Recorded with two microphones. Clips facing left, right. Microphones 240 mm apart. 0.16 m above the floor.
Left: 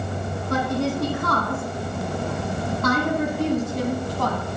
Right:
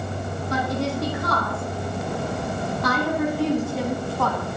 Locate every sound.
0.5 s a woman speaking: 55° left (ahead or behind), 8 m; by 4.4 s 40° left (ahead or behind), 6 m